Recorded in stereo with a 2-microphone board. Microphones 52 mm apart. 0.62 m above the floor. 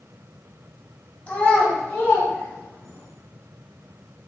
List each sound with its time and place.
1.3 s a child speaking: 30° left (ahead or behind), 2.0 m; by 3.1 s 85° left, 1.5 m